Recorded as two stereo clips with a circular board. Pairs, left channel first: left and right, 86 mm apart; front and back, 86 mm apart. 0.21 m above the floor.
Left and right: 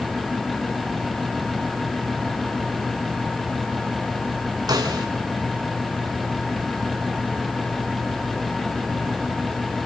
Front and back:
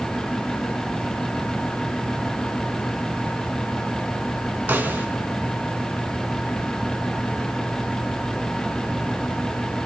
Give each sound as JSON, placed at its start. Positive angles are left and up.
{"t": 4.7, "sound": "a snare drum", "azimuth_deg": -115, "distance_m": 2.5}